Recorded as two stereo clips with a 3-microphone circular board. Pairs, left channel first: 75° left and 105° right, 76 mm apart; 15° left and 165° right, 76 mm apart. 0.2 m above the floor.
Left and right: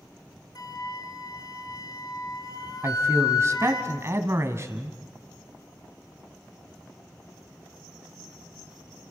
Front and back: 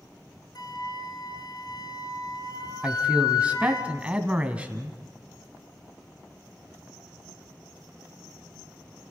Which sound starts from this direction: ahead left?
A flute, at 0.6 s.